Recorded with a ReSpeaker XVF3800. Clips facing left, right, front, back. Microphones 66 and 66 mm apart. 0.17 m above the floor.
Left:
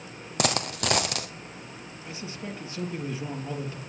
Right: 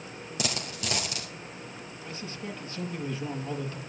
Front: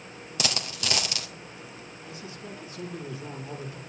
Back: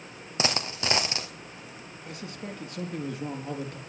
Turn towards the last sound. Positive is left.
turn(degrees=160)